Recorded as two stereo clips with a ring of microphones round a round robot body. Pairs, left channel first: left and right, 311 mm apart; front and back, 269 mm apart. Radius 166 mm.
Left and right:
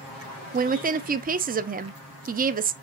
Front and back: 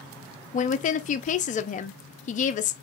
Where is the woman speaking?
45° right, 0.5 m.